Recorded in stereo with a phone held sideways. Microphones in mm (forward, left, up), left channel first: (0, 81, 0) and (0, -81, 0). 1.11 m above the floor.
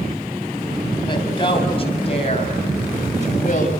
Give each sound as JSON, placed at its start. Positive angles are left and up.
{"t": 1.1, "sound": "a woman speaking", "side_deg": 30, "distance_m": 7.0}